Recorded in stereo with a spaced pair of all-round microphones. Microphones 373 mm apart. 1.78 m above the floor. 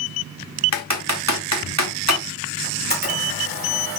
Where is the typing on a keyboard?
45° right (ahead or behind), 0.7 m.